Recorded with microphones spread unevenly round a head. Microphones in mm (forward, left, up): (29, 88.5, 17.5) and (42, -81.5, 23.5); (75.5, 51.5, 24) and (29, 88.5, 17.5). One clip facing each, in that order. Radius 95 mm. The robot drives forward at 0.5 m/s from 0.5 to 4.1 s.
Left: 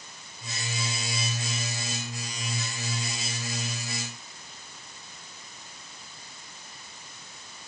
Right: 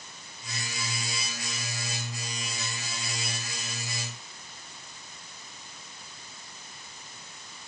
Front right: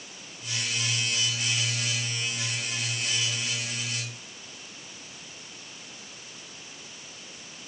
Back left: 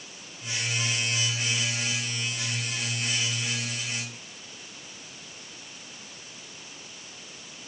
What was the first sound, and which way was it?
Only background noise.